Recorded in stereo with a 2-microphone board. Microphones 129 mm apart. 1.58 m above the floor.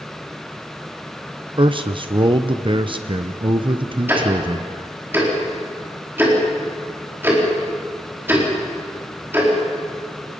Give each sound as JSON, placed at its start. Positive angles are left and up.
{"t": 1.6, "sound": "a man speaking", "side_deg": -45, "distance_m": 0.7}
{"t": 4.1, "sound": "ticking", "side_deg": -20, "distance_m": 4.5}